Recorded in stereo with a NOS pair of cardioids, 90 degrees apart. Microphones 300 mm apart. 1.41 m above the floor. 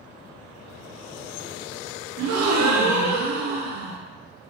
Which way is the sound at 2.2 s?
65° right.